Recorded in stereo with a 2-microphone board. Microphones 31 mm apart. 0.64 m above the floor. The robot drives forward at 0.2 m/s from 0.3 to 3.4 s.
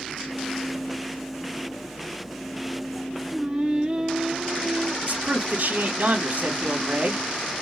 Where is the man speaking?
75° right (ahead or behind), 2.5 m.